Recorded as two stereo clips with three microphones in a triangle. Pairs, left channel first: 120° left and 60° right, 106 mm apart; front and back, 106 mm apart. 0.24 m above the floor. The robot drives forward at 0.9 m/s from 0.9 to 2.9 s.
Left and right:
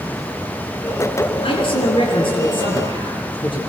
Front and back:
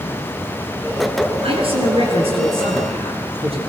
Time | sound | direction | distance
1.4 | a man speaking | 150° left | 5.5 m